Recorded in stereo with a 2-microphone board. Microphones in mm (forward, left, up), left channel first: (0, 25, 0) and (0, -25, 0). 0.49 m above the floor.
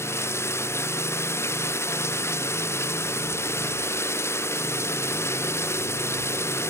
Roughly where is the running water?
Left.